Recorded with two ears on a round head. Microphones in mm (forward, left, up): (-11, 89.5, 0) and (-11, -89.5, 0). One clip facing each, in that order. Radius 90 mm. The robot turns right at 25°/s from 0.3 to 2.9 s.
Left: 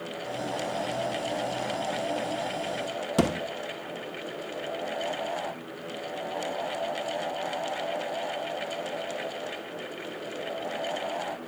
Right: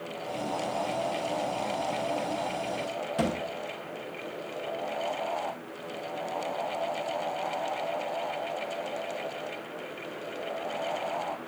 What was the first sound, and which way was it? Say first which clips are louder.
A thud: left 4 dB; 60° left (ahead or behind).